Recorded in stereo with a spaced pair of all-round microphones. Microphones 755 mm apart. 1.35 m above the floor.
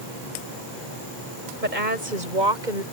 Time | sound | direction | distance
1.6 | a woman speaking | 90° right | ?